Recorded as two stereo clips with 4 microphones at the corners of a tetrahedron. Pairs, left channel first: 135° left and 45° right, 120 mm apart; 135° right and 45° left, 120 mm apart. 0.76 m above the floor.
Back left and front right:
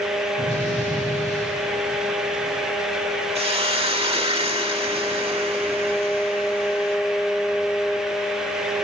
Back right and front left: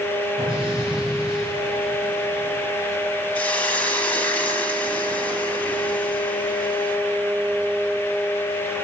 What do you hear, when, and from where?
0.4 s an explosion: 130° left, 7 m
3.4 s a hiss: 60° right, 1.3 m